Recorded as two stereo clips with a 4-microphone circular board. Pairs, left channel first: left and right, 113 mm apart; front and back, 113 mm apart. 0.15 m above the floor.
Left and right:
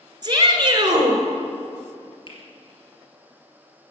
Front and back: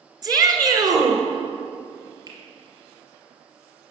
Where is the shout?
130° right, 1.8 m.